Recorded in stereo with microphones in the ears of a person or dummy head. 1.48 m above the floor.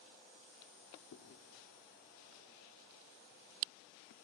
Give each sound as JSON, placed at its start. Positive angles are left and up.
{"t": 1.1, "sound": "chewing", "side_deg": 55, "distance_m": 1.2}